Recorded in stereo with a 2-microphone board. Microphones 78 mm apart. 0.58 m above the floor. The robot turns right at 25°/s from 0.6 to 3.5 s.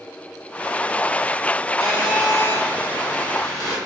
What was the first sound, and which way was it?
A phone buzzing, 125° left.